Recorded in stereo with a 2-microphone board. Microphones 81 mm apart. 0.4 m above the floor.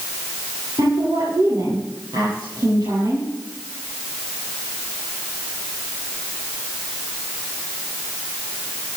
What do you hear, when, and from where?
0.8 s a woman speaking: 55° right (ahead or behind), 9 m